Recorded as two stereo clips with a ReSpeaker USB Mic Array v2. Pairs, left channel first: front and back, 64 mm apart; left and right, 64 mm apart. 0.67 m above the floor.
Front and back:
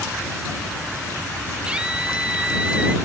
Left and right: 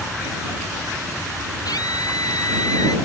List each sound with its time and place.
1.6 s a scream: 105° left; by 3.0 s 110° left